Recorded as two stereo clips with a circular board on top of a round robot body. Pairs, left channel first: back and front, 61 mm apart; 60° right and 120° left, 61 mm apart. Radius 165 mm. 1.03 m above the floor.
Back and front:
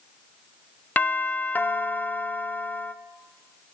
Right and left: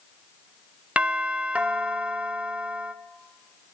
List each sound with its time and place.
1.0 s a doorbell: 165° left, 0.6 m